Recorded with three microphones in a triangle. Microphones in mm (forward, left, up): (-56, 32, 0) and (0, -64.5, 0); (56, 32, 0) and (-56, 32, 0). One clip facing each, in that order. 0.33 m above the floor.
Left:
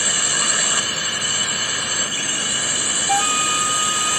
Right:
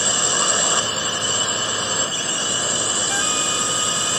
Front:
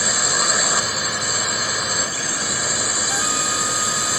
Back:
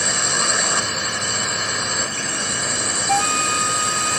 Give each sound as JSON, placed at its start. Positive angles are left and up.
{"t": 0.0, "sound": "a drone", "azimuth_deg": -85}
{"t": 3.1, "sound": "a flute", "azimuth_deg": 155}